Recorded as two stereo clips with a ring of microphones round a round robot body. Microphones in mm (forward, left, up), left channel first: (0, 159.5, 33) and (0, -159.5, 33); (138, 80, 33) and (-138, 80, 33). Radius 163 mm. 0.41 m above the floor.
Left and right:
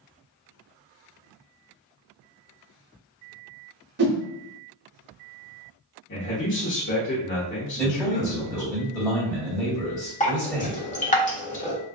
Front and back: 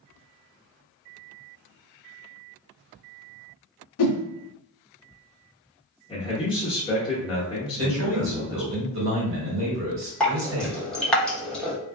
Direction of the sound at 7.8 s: 170° left.